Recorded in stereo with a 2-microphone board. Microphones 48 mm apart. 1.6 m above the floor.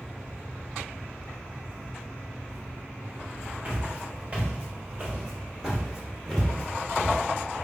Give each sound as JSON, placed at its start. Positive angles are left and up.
{"t": 3.6, "sound": "footsteps", "side_deg": -30, "distance_m": 1.8}